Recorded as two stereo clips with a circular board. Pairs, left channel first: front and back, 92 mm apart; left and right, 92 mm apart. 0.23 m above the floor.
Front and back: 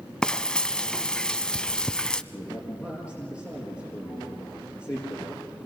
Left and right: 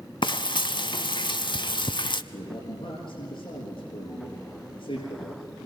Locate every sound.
0.2 s frying: 80° left, 0.6 m
2.3 s a man speaking: 60° left, 4.5 m